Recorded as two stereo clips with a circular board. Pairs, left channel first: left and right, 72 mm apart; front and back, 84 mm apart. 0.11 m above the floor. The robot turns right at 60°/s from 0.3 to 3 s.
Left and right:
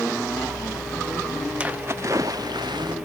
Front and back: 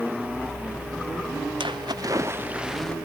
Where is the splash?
165° right; by 3.0 s 80° right.